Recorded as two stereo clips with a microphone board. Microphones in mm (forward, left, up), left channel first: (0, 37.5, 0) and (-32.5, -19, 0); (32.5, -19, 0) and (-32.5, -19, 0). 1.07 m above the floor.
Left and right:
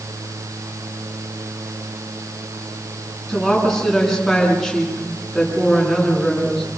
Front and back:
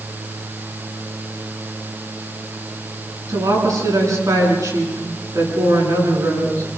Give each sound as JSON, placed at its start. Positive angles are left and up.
{"t": 3.3, "sound": "a woman speaking", "azimuth_deg": 150, "distance_m": 10.0}